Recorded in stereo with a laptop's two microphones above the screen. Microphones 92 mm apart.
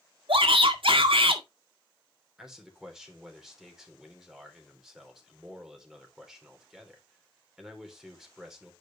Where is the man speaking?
5° right (ahead or behind), 3.5 m.